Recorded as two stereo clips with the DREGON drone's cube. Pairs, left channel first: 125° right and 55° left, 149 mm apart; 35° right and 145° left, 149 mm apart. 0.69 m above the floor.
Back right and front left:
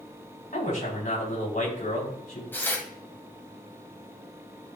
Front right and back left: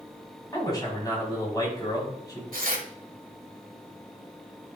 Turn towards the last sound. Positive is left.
turn(degrees=160)